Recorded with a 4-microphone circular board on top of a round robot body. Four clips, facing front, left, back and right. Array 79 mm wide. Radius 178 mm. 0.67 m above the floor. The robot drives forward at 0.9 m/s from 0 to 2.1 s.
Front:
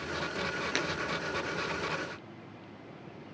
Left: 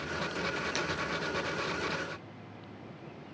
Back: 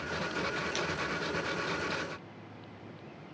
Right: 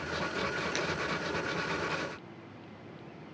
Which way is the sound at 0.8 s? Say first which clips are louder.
Right 1 dB, front 2 dB; 5° right.